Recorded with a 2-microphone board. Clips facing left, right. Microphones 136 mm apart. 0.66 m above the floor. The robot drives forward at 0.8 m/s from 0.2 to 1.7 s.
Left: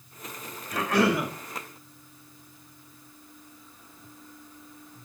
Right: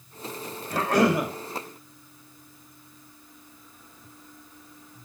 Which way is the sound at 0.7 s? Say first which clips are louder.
Right 2 dB; 45° right (ahead or behind).